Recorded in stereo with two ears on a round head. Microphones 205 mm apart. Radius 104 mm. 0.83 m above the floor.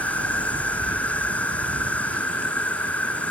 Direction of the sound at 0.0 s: 5° left (ahead or behind).